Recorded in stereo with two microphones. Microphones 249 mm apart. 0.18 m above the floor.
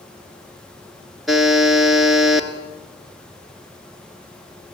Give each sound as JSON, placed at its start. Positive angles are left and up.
{"t": 1.3, "sound": "a buzzer", "side_deg": 0, "distance_m": 1.8}